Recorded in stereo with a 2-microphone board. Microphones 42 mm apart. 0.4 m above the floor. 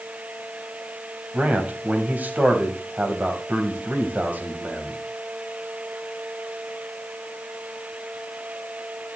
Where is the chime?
No chime in this recording.